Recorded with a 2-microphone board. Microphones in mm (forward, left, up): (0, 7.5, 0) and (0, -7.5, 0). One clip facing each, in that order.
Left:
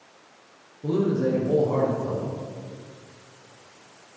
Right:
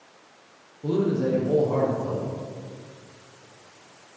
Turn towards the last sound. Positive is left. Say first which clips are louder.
# even
turn(degrees=-20)  # may be behind; listen again after turning